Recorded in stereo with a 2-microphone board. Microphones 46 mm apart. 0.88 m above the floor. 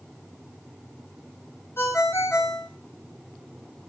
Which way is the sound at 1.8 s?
70° left (ahead or behind).